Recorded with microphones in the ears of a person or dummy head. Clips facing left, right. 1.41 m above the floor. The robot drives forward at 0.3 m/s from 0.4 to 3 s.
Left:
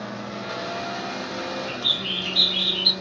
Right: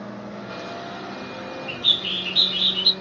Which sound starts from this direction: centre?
A bird, at 1.7 s.